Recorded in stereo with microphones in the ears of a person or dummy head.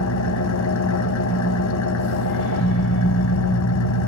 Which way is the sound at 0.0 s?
75° left (ahead or behind).